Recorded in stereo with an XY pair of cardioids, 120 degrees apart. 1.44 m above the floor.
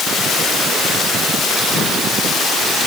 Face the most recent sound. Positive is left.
No sound to turn to.